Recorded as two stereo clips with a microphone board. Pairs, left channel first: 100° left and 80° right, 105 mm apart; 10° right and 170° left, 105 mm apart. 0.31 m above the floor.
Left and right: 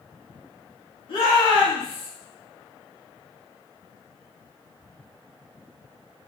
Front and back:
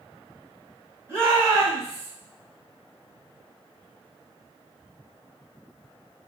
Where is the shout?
110° left, 1.9 m.